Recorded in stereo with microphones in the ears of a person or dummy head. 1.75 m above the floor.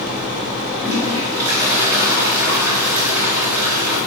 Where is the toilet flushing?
20° right (ahead or behind), 4.5 m.